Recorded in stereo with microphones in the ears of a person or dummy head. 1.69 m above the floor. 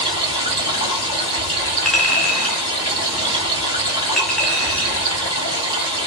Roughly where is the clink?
Centre.